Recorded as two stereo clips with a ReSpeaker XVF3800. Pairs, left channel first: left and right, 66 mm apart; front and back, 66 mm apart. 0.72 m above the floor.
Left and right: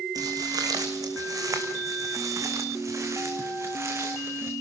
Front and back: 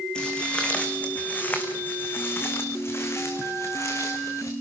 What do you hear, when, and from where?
0.1 s footsteps: 75° right, 3 m; by 4.5 s 40° right, 4 m